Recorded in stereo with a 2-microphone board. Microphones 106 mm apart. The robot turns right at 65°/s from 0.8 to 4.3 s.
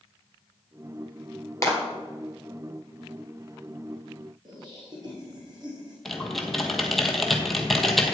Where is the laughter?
45° right (ahead or behind), 2 m.